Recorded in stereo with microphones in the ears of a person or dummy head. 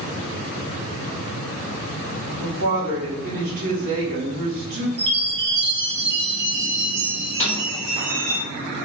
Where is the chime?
75° right (ahead or behind), 1.3 m.